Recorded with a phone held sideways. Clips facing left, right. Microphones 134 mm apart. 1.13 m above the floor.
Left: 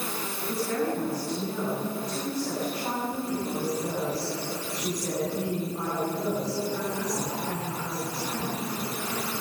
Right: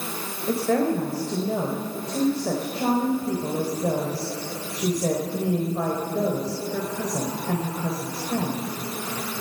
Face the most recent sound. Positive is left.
turn(degrees=-90)